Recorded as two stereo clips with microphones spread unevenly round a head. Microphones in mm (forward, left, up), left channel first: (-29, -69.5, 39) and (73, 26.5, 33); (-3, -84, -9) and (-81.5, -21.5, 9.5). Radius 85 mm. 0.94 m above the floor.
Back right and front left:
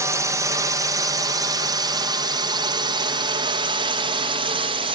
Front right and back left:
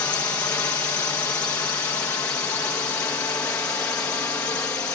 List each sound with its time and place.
0.0 s a drone: straight ahead; by 5.0 s 25° left